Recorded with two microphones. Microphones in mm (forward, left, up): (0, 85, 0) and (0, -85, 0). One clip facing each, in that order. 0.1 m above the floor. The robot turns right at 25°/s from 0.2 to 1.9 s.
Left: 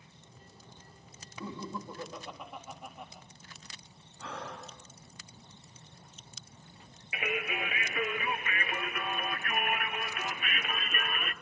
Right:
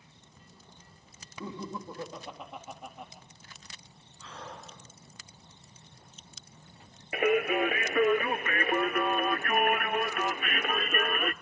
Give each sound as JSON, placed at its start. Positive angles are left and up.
{"t": 1.4, "sound": "laughter", "side_deg": -15, "distance_m": 3.5}
{"t": 4.2, "sound": "breathing", "side_deg": 70, "distance_m": 6.5}
{"t": 7.1, "sound": "singing", "side_deg": -55, "distance_m": 0.5}